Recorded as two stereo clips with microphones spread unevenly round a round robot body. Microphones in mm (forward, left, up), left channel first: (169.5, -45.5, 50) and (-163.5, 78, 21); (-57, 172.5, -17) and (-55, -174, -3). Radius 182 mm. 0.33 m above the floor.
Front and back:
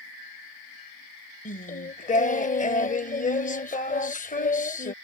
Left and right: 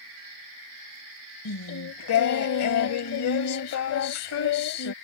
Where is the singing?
50° left.